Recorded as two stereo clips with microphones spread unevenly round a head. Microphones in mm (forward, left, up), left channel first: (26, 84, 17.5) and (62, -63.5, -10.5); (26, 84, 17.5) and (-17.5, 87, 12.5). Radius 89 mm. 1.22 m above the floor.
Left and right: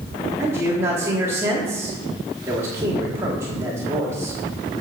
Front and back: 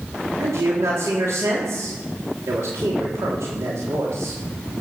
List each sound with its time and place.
0.4 s a man speaking: 155° right, 3 m